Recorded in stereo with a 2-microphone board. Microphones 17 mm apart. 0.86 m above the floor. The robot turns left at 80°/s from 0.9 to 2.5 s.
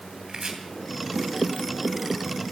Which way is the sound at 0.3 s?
40° right (ahead or behind).